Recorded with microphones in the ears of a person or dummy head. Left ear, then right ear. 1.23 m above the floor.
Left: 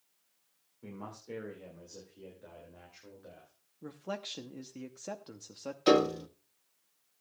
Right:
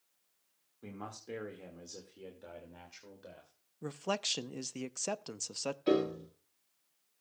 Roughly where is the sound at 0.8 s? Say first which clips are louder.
Even; right.